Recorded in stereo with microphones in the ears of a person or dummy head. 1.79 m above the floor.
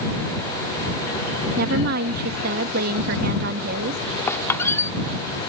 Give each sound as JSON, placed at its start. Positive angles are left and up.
{"t": 1.6, "sound": "a woman speaking", "side_deg": -60}
{"t": 4.3, "sound": "a squeak", "side_deg": 15}